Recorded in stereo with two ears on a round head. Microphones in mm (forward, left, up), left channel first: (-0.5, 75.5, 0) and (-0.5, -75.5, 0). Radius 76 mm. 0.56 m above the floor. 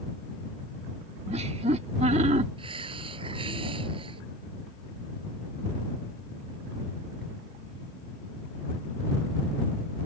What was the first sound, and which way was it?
Laughter, 40° right (ahead or behind).